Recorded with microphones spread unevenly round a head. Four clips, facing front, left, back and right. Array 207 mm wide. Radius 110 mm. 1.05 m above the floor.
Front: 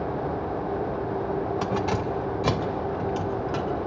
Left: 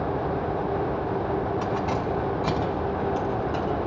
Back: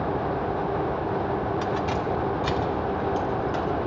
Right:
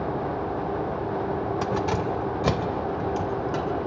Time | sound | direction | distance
1.6 | keys jangling | 50° right | 1.9 m